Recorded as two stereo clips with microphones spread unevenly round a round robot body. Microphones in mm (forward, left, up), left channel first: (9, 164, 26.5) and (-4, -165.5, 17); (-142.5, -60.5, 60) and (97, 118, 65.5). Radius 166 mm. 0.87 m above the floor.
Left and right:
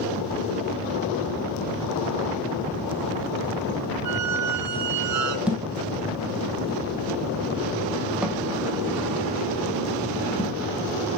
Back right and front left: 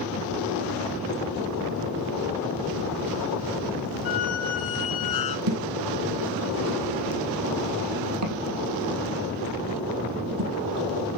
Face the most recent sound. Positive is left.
turn(degrees=-5)